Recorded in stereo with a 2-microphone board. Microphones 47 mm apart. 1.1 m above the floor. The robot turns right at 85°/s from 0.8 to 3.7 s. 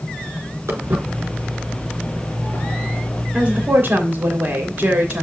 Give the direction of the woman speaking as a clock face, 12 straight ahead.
5 o'clock.